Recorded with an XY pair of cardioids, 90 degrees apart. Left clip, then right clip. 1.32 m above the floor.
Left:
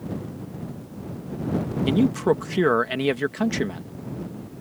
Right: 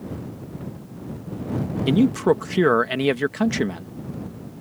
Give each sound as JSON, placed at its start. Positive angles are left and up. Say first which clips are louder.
{"t": 1.9, "sound": "a man speaking", "louder": "right 3 dB", "azimuth_deg": -20}